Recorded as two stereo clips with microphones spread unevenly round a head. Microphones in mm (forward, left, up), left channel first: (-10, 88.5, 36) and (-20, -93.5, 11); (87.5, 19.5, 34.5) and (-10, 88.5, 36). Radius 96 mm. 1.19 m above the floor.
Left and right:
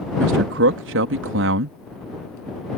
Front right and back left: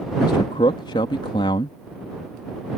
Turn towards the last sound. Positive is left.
turn(degrees=-100)